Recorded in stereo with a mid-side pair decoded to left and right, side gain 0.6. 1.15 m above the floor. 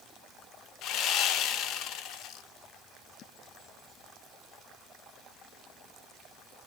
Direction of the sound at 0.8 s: 60° left.